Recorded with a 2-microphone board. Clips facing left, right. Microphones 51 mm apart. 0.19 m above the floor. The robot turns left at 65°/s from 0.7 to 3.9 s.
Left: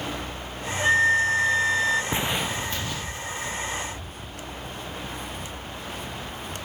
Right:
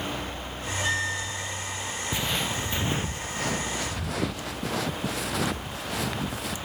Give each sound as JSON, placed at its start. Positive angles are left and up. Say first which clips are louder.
{"t": 0.8, "sound": "a flute", "louder": "left 10 dB", "azimuth_deg": 160}
{"t": 2.1, "sound": "footsteps", "louder": "left 2 dB", "side_deg": 25}